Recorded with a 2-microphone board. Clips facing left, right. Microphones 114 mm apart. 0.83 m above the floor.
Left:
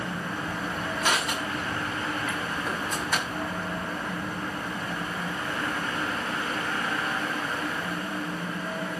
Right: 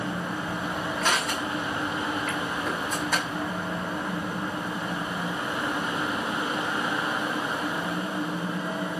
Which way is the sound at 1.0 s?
5° left (ahead or behind).